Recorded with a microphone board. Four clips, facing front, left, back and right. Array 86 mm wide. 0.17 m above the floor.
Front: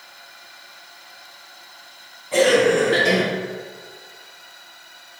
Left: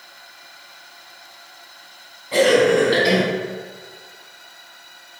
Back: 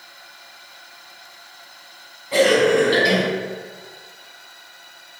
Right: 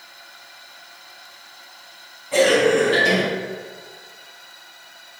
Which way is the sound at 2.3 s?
130° left.